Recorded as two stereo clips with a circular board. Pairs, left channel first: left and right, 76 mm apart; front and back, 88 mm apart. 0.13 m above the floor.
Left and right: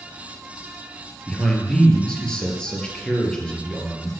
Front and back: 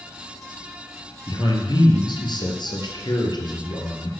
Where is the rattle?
No rattle in this recording.